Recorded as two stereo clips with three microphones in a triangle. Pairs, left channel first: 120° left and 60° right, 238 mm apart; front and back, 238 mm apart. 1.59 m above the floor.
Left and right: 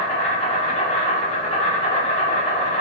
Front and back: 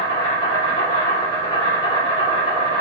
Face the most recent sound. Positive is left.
turn(degrees=65)